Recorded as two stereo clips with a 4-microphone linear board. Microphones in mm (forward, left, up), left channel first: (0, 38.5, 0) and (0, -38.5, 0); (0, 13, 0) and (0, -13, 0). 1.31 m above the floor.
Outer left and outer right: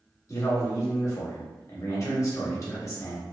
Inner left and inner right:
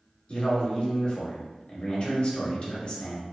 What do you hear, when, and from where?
0.3 s a man speaking: 45° left (ahead or behind), 1.0 m